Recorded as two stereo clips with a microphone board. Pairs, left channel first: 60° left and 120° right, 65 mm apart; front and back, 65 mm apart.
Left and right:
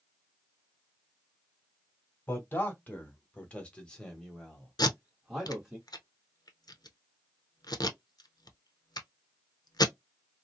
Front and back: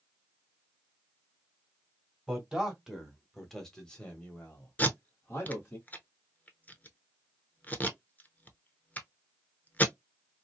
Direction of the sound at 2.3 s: 110° left.